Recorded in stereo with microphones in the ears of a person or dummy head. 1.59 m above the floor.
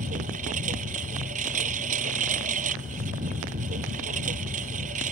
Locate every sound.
0.0 s a lawn mower: 40° right (ahead or behind)